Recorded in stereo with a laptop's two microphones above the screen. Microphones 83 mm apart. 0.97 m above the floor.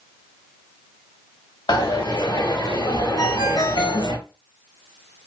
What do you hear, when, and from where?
1.7 s a dropped coin: 60° left (ahead or behind), 1.7 m
3.2 s a ringtone: 50° left (ahead or behind), 1.7 m